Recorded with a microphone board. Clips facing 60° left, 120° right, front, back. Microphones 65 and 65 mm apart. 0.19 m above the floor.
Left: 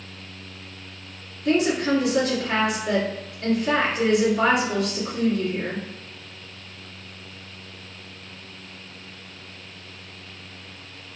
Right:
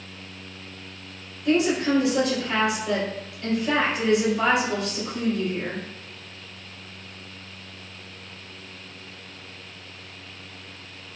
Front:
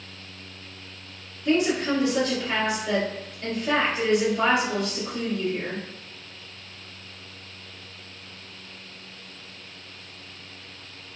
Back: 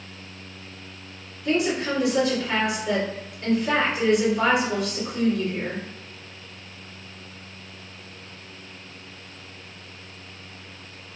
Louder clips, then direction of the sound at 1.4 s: Even, front 1 dB; 110° left.